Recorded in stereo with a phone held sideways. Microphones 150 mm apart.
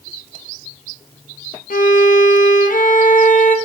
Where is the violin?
65° left (ahead or behind), 1.0 m.